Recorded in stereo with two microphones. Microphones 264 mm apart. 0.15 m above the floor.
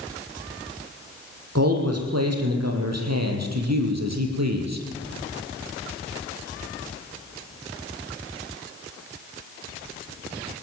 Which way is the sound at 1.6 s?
60° right (ahead or behind).